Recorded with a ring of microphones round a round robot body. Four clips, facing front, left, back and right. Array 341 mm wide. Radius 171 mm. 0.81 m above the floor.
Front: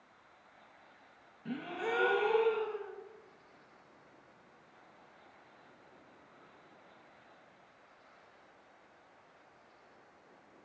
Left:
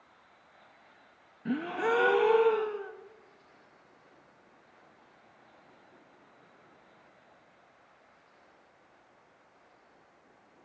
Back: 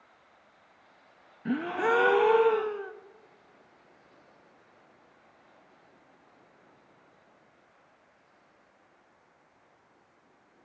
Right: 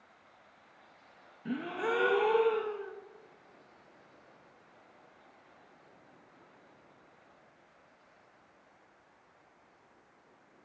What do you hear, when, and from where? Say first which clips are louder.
1.4 s a gasp: left 4 dB, back 10 dB; 160° left, 0.7 m